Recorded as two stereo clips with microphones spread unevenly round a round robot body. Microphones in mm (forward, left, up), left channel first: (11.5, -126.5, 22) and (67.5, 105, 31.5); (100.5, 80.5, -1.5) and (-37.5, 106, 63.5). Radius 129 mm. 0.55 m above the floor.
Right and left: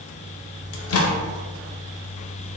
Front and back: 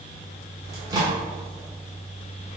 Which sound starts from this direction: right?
A microwave, at 0.7 s.